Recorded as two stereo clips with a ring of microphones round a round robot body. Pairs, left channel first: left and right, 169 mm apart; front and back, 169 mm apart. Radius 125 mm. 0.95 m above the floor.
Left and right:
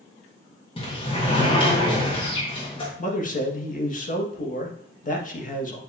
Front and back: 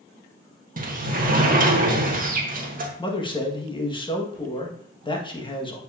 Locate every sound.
0.8 s a sliding door: 150° left, 1.6 m
3.0 s a man speaking: 60° left, 1.8 m